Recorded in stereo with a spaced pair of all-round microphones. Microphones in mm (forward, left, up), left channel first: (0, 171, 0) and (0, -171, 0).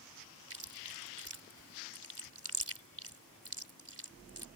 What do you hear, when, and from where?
0.5 s chewing: 40° right (ahead or behind)